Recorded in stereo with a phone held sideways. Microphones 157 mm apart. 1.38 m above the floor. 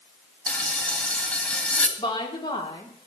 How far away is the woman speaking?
About 4 m.